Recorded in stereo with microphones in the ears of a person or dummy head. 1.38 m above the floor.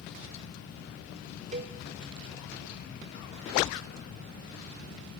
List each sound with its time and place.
1.5 s a cowbell: 40° right (ahead or behind), 1.2 m